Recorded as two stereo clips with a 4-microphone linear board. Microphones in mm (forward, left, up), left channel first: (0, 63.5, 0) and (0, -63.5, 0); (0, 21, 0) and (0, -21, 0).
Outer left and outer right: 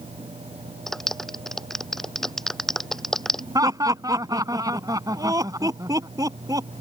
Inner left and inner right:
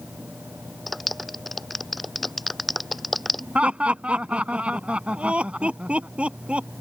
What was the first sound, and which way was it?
A clap, 5° left (ahead or behind).